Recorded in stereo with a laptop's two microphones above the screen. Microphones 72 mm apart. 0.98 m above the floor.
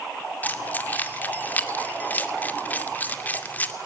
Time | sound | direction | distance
0.4 | keys jangling | 25° left (ahead or behind) | 2.0 m